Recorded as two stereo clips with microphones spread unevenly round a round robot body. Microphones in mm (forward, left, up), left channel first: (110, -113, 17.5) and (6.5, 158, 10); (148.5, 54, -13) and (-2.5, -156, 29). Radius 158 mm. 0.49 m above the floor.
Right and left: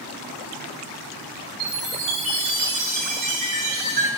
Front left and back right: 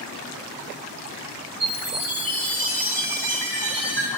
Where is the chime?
135° left, 3 m.